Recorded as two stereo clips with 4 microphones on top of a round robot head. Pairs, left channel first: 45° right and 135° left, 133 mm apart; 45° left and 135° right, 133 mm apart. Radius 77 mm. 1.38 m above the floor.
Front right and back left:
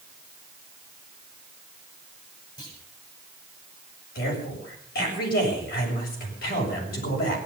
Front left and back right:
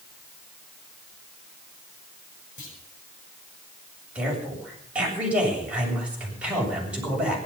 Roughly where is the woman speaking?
Ahead right.